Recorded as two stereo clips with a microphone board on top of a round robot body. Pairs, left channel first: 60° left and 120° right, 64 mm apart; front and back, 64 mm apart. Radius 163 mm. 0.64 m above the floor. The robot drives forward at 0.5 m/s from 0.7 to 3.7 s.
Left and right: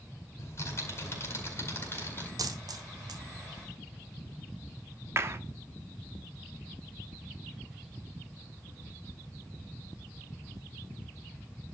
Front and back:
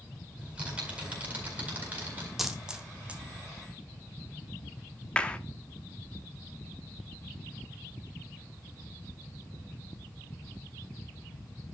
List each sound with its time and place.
0.4 s typing on a keyboard: 105° left, 4 m; by 2.3 s 115° left, 4.5 m
2.4 s a dropped coin: 95° right, 1.3 m; by 3.2 s 110° right, 1.4 m
5.2 s a clap: 75° right, 1.2 m